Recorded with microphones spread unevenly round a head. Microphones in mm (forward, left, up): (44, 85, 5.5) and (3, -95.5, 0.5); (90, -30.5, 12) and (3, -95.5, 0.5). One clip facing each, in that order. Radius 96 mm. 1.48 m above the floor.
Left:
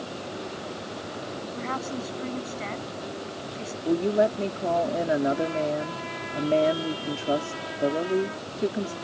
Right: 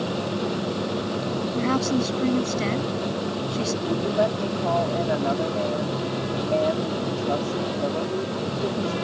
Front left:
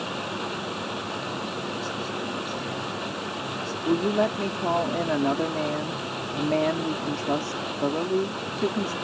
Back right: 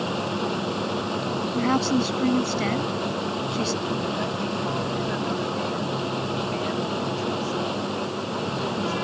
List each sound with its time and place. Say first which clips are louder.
0.0 s a machine running: right 9 dB, back right 5 dB; 85° right
1.6 s a woman speaking: right 11 dB, back right 10 dB; 145° right
3.9 s a woman speaking: left 3 dB, front left 4 dB; 15° left